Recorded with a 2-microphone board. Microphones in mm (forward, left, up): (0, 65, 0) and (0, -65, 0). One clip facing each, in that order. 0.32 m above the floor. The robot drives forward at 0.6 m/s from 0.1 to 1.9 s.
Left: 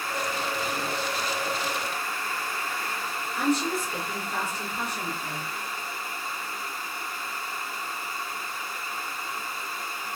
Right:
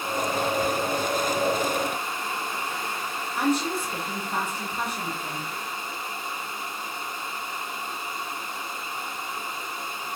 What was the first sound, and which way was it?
A woman speaking, 55° right (ahead or behind).